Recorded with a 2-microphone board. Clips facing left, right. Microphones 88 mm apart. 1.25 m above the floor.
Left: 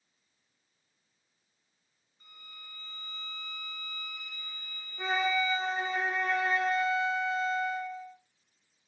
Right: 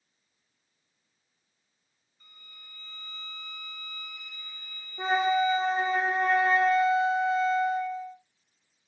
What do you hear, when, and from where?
2.2 s a violin: 15° left (ahead or behind), 1.5 m
5.0 s a flute: 40° right (ahead or behind), 1.0 m